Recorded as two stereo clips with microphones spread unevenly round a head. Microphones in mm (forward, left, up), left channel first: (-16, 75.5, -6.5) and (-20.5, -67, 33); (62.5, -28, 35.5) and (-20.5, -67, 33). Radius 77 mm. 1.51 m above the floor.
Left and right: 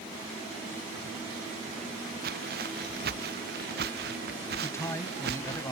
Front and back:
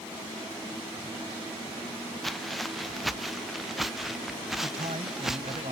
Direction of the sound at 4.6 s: 160° left.